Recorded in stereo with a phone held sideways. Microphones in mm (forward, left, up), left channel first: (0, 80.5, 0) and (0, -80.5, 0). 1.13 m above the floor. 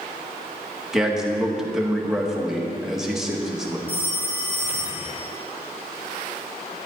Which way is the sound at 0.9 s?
5° right (ahead or behind).